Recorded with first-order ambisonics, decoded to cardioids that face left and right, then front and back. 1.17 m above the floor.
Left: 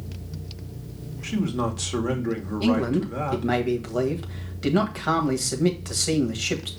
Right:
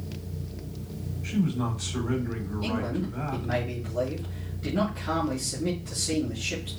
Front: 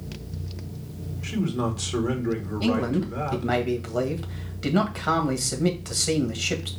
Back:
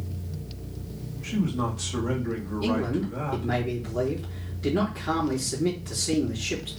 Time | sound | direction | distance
1.2 | a man speaking | 70° left | 2 m
2.6 | a man speaking | 50° left | 1.7 m